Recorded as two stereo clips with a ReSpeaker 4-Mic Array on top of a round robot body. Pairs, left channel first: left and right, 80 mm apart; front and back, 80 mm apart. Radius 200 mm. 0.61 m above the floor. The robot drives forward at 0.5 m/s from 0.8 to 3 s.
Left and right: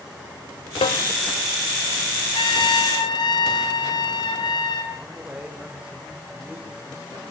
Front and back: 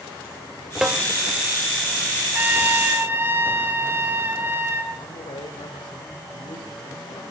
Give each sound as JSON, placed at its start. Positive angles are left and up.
{"t": 0.8, "sound": "a snare drum", "azimuth_deg": 95, "distance_m": 0.5}
{"t": 2.4, "sound": "a trumpet", "azimuth_deg": 110, "distance_m": 2.5}
{"t": 4.9, "sound": "a man speaking", "azimuth_deg": -15, "distance_m": 3.0}